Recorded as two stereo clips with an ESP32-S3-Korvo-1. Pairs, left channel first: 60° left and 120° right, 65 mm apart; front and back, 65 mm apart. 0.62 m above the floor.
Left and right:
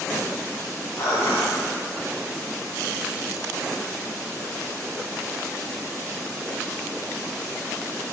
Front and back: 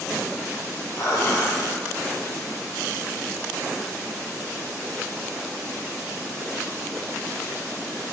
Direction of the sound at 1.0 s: 50° left.